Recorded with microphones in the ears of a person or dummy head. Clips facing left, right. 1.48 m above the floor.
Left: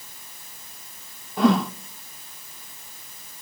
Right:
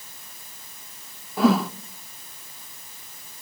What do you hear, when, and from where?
1.4 s a whoosh: centre (ahead or behind), 0.6 m